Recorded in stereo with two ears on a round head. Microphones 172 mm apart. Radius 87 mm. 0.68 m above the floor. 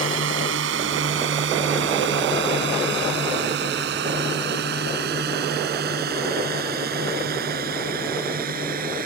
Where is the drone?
75° right (ahead or behind); by 9.1 s 50° right (ahead or behind).